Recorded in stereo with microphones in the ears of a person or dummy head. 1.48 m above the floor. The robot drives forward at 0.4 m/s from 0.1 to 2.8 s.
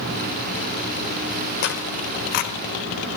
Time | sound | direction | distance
1.6 | tearing paper | 45° left (ahead or behind) | 1.6 m